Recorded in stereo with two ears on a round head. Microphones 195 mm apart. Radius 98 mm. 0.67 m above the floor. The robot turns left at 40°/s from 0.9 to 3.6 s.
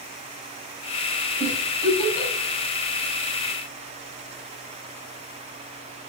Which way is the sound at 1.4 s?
10° left (ahead or behind).